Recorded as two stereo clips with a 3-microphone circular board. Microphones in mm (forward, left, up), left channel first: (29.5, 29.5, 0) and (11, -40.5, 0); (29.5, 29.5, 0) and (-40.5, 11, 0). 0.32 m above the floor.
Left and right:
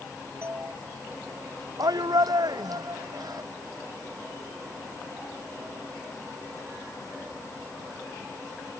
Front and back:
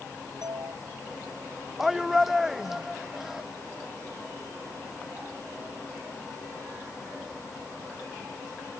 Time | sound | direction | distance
0.4 | a doorbell | 160° right | ?
1.8 | a shout | 80° right | ?